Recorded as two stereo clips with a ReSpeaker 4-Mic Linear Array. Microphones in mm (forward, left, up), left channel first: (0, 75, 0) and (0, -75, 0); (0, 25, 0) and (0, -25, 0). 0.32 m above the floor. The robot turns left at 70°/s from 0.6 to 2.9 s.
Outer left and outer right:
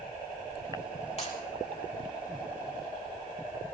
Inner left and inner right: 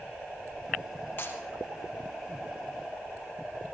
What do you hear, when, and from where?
1.2 s breaking glass: 45° left (ahead or behind), 4.5 m; by 1.4 s 55° left (ahead or behind), 4.5 m